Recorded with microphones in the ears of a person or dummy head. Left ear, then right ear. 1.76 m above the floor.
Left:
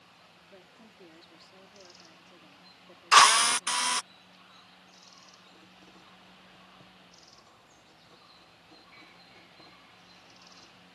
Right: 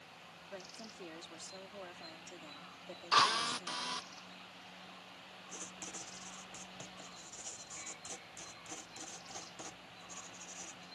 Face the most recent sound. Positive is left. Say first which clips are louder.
# right 7 dB
turn(degrees=-70)  # may be behind; listen again after turning